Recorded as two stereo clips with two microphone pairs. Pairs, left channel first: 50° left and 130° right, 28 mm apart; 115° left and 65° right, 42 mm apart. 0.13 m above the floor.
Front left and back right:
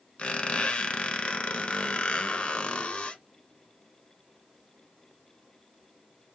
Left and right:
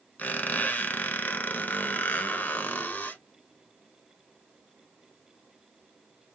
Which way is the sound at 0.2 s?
75° left.